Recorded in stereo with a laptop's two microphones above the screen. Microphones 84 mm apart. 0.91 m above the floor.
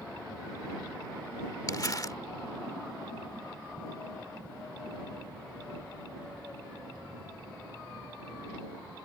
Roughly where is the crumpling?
Left.